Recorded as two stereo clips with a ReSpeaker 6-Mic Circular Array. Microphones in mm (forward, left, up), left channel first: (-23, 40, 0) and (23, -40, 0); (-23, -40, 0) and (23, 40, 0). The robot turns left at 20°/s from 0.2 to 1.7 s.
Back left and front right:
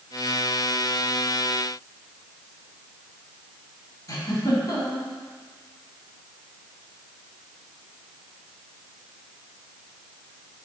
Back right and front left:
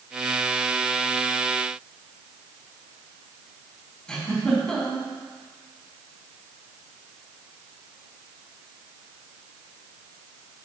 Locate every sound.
4.1 s a giggle: 160° left, 2.5 m